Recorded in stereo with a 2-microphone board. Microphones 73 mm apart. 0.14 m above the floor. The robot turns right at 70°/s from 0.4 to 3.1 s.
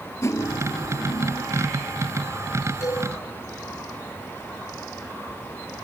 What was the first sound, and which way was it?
Cutlery clinking, 50° left.